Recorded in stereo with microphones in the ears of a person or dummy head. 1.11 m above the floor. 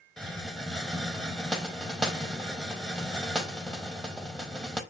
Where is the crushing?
No crushing in this recording.